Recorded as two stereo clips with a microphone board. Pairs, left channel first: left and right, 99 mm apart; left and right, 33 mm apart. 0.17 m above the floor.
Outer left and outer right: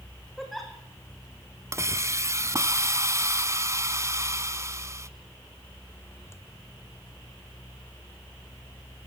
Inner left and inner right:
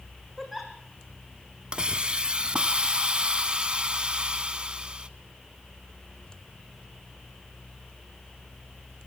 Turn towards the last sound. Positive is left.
turn(degrees=-30)  # may be behind; listen again after turning